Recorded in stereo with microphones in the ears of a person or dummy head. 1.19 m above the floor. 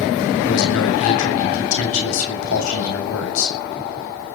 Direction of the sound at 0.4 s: 80° left.